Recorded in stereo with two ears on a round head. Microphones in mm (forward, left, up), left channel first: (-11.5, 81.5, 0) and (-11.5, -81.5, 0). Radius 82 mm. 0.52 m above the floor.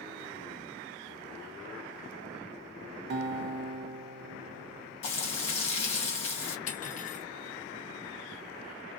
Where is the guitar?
55° right (ahead or behind), 0.6 m.